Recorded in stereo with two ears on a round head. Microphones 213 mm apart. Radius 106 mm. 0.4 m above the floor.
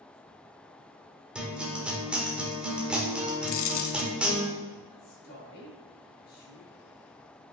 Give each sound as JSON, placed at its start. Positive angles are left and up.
{"t": 1.4, "sound": "a guitar", "side_deg": -5, "distance_m": 1.4}
{"t": 3.5, "sound": "a dropped coin", "side_deg": 60, "distance_m": 0.6}
{"t": 4.9, "sound": "a man speaking", "side_deg": 50, "distance_m": 2.5}